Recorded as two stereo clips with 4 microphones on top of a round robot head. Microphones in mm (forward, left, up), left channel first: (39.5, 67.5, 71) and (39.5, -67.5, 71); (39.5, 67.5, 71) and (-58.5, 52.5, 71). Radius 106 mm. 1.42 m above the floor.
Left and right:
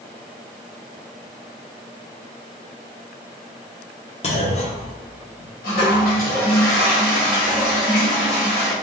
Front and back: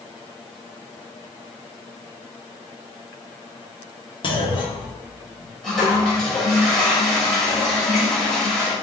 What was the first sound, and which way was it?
A clunk, 50° left.